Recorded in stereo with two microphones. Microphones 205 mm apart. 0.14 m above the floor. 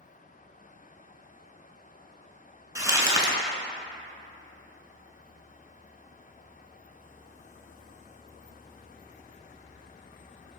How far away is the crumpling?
About 0.5 m.